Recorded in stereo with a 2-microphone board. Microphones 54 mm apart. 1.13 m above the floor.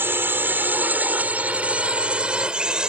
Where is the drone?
45° right (ahead or behind); by 2.9 s 15° right (ahead or behind).